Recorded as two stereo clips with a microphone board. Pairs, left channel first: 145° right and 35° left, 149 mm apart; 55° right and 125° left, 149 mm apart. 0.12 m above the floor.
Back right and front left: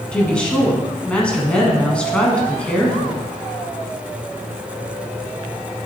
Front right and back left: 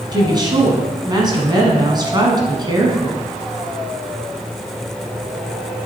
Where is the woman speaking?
140° left, 1.3 m.